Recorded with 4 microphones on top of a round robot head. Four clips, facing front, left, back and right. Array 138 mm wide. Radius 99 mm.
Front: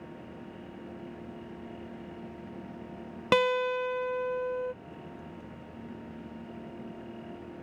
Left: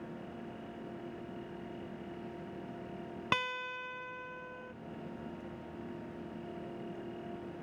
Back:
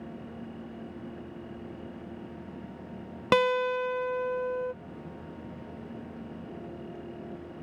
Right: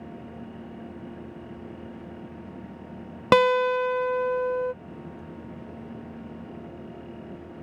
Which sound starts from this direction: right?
A guitar, at 3.3 s.